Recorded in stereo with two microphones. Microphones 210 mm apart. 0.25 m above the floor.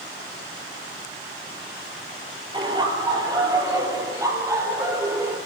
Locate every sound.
2.5 s laughter: 20° right (ahead or behind), 8 m; by 5.4 s 10° right (ahead or behind), 9 m